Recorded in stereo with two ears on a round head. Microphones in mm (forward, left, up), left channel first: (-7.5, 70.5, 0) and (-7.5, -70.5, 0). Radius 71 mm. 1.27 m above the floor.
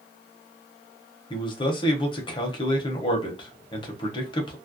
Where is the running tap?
I don't hear a running tap.